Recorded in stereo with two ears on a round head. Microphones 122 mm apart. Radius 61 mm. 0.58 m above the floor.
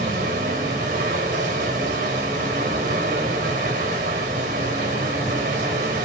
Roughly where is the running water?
Right.